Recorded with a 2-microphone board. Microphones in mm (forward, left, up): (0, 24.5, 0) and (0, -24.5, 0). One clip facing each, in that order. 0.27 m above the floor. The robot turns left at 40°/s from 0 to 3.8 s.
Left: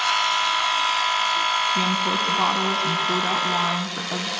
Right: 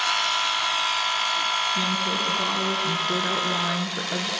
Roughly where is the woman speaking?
Behind left.